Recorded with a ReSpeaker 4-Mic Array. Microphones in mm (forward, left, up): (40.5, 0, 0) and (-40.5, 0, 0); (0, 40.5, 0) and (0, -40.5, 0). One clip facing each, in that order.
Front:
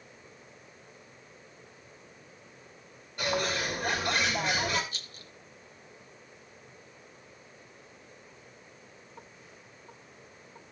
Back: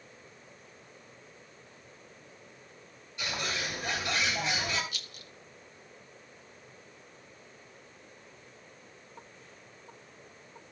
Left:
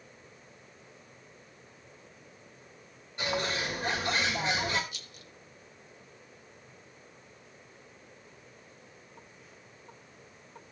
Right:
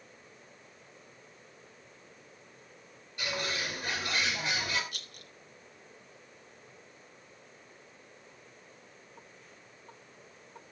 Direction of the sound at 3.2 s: 35° left.